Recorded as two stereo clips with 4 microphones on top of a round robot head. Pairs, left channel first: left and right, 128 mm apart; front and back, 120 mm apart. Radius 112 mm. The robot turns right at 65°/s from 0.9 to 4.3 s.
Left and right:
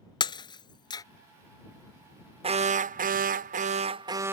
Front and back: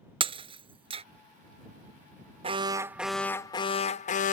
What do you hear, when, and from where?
0.2 s breaking glass: 140° left; by 1.0 s 150° left
2.4 s an alarm: 135° right; by 4.3 s 15° right